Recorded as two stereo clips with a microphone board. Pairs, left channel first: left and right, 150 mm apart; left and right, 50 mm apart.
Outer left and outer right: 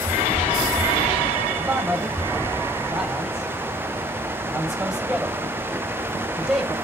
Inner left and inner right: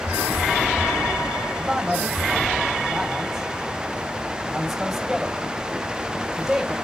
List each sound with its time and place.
1.6 s a man speaking: 5° right (ahead or behind), 7.5 m